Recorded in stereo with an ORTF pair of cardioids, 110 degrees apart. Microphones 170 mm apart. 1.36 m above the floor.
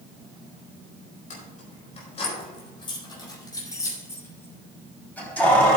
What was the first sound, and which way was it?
Keys jangling, 50° left.